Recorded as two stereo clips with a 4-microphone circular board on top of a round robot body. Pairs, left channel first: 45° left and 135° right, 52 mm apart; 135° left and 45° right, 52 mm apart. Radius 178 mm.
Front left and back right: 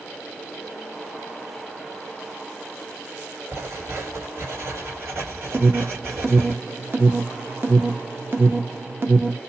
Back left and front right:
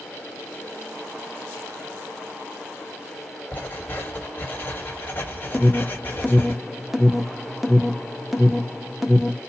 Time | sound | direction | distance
3.5 | writing | 170° right | 2 m
5.5 | an alarm | 130° right | 1.3 m